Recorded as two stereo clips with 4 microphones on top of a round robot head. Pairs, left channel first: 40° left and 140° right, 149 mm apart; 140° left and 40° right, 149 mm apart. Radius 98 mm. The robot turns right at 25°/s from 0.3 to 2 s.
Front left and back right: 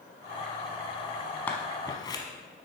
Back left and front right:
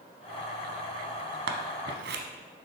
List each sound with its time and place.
1.5 s scissors: 40° right, 0.8 m; by 2.2 s 25° right, 0.8 m